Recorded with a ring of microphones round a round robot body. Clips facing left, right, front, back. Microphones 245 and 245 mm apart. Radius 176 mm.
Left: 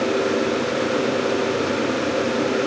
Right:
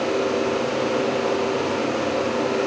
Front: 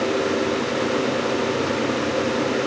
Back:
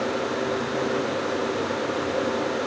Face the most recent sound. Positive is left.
No sound to turn to.